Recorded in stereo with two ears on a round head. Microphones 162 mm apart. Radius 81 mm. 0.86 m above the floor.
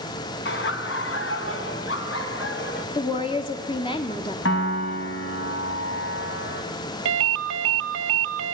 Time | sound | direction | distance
0.5 | laughter | 65° left (ahead or behind) | 1.7 m
3.0 | a woman speaking | 30° left (ahead or behind) | 1.4 m
4.5 | a piano | 85° left | 4 m
7.0 | a ringtone | 80° right | 0.7 m